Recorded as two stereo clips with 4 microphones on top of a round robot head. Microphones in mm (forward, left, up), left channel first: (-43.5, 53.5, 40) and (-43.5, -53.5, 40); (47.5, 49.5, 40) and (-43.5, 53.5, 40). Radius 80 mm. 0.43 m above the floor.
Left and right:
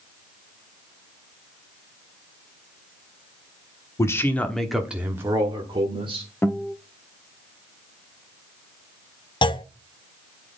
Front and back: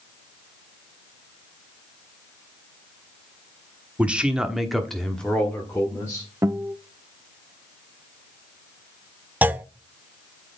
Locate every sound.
4.0 s a man speaking: 115° left, 1.3 m; by 6.3 s 70° right, 1.9 m
6.4 s a guitar: 145° left, 1.1 m
9.4 s a clunk: 110° left, 0.7 m